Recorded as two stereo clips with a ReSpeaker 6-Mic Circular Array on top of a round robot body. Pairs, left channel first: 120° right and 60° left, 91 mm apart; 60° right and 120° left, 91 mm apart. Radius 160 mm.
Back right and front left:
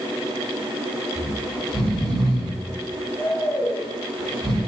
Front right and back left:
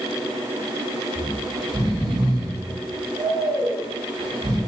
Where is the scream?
I don't hear a scream.